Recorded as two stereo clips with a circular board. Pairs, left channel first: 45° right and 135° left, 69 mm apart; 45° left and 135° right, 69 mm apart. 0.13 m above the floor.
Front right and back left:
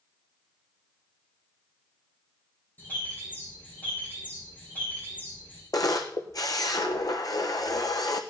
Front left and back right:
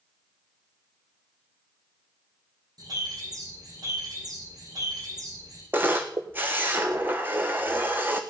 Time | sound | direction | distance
2.8 | a bird | 110° right | 7 m
5.7 | a camera shutter | 75° right | 1.5 m